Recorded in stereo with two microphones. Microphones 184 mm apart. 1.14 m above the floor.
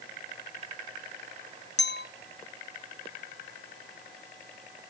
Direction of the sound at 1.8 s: 70° left (ahead or behind).